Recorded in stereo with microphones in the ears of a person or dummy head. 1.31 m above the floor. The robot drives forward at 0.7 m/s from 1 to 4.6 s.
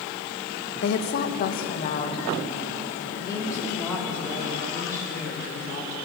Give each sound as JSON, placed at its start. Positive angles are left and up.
{"t": 0.8, "sound": "a woman speaking", "side_deg": 65, "distance_m": 0.9}